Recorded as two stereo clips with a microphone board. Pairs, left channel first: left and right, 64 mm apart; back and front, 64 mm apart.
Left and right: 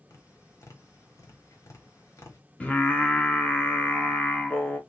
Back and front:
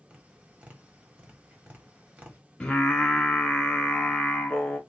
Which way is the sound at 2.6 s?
120° left.